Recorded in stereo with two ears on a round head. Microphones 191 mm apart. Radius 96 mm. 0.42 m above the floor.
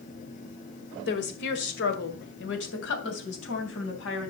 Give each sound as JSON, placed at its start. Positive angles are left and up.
{"t": 1.1, "sound": "a woman speaking", "side_deg": 55, "distance_m": 1.9}